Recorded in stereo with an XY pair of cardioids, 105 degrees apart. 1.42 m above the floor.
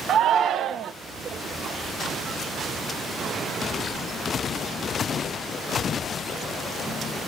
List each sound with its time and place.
0.1 s a shout: 65° right, 0.9 m